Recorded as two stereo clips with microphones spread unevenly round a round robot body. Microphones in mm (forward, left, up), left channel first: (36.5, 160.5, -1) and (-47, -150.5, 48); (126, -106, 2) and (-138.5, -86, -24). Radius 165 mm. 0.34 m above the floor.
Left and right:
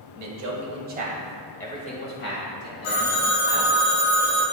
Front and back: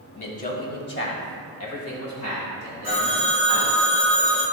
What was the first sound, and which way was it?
A man speaking, 70° right.